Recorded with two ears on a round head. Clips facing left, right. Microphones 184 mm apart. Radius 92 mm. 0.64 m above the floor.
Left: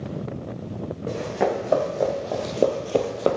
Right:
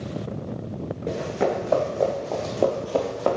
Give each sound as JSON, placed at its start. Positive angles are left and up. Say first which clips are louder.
{"t": 1.1, "sound": "running footsteps", "louder": "even", "side_deg": 0, "distance_m": 2.5}